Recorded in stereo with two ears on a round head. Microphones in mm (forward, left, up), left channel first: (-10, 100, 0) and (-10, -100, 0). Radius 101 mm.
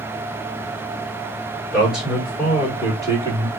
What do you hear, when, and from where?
1.7 s a man speaking: centre (ahead or behind), 3 m; by 3.5 s 20° right (ahead or behind), 3 m